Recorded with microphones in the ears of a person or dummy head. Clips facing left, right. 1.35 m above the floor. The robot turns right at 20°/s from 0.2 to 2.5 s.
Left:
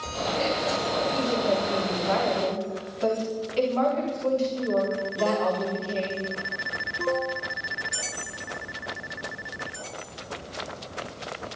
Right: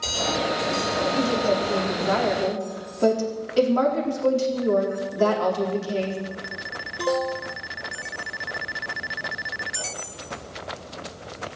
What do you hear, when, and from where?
1.1 s a woman speaking: 25° right (ahead or behind), 3.5 m; by 6.2 s 55° right (ahead or behind), 3.5 m